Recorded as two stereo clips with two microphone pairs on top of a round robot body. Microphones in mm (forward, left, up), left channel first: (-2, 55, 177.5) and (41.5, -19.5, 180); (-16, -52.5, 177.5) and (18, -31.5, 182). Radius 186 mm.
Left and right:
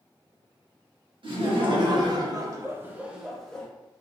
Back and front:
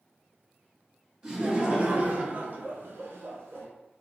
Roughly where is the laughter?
Ahead right.